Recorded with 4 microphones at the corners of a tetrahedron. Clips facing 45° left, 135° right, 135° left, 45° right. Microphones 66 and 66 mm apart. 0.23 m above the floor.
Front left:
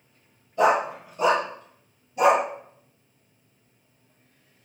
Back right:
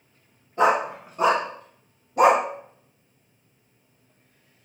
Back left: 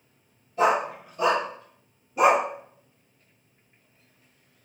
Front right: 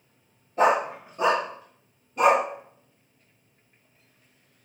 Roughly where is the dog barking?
Right.